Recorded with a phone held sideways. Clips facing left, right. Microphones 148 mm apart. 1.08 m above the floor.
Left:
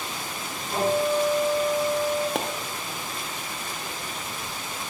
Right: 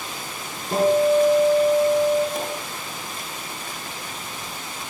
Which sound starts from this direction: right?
A guitar, at 0.7 s.